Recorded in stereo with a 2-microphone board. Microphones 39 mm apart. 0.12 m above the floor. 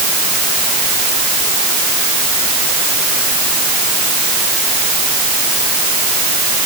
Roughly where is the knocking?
No knocking in this recording.